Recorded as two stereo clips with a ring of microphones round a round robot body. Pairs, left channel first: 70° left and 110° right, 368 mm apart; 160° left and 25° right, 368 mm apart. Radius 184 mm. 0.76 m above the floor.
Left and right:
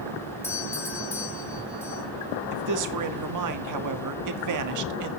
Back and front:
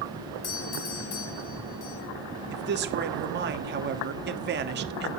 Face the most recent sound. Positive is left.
turn(degrees=-80)